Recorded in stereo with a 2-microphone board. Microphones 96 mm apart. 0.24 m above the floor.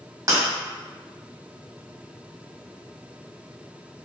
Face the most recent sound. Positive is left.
turn(degrees=-40)  # may be behind; listen again after turning